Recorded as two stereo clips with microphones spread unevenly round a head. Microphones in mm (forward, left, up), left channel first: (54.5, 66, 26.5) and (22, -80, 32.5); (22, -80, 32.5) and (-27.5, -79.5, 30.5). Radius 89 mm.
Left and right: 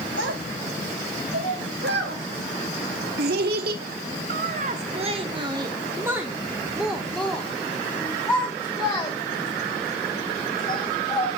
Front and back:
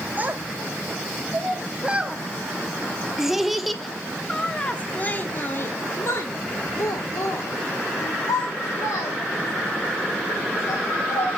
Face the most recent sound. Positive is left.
turn(degrees=15)